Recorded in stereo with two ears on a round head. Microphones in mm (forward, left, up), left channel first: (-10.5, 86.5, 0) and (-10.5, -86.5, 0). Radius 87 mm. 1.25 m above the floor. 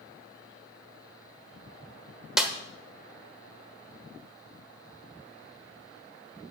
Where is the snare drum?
5° right (ahead or behind), 1.2 m.